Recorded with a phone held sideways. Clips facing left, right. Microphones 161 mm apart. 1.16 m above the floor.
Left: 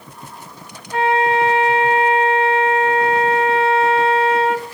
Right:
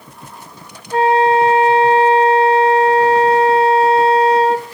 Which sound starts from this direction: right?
A flute, at 0.9 s.